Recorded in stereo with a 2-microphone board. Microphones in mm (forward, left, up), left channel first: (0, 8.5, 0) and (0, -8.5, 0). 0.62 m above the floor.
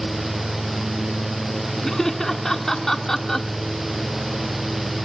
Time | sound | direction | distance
1.8 | laughter | 20° left (ahead or behind) | 1.2 m